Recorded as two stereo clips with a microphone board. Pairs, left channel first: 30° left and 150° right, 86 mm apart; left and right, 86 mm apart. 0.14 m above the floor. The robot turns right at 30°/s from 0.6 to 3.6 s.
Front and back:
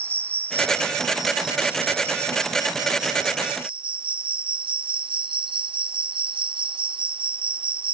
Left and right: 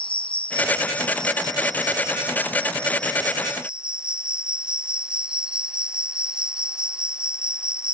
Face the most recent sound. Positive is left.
turn(degrees=-170)